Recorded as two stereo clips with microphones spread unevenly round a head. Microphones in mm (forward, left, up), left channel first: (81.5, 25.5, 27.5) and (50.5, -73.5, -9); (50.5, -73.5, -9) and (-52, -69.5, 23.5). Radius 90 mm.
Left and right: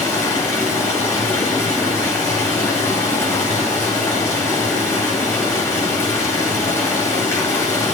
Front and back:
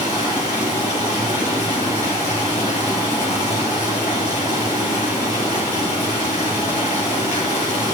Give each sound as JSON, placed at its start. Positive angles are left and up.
{"t": 0.0, "sound": "running water", "azimuth_deg": 5, "distance_m": 8.5}